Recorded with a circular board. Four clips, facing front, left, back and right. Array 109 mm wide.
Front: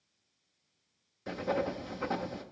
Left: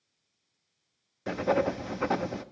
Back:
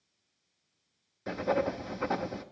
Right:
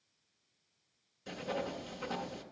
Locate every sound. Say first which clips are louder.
1.3 s writing: left 12 dB, back 3 dB; 105° left, 0.6 m